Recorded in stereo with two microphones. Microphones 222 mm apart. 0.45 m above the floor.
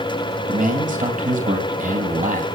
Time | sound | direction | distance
0.5 | a man speaking | 35° right (ahead or behind) | 3 m